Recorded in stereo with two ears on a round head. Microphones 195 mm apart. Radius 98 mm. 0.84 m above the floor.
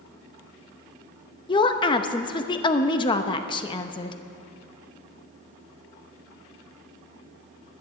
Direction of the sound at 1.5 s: 20° left (ahead or behind).